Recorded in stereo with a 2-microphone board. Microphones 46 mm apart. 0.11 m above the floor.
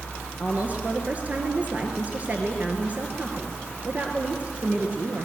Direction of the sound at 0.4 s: 35° right (ahead or behind).